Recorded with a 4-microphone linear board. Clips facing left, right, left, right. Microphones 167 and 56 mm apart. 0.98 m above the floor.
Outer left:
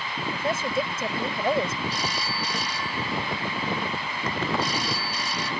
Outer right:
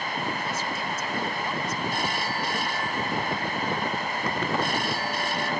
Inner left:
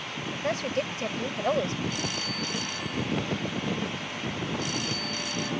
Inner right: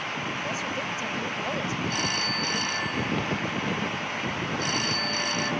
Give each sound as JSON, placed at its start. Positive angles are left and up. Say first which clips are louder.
{"t": 0.3, "sound": "a woman speaking", "louder": "outer left 5 dB, inner left 2 dB", "side_deg": 65}
{"t": 1.9, "sound": "a phone ringing", "louder": "outer right 2 dB, inner right 4 dB", "side_deg": -60}